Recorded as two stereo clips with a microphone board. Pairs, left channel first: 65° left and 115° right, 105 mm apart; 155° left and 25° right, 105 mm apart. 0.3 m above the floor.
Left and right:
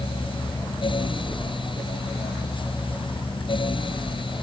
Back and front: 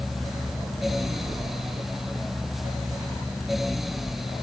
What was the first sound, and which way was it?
Only background noise.